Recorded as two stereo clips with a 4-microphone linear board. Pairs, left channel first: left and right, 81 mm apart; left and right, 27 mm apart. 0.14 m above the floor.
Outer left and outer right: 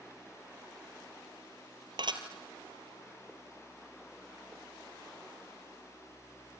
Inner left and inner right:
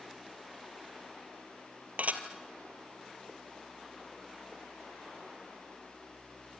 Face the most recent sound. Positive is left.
turn(degrees=-70)  # may be behind; listen again after turning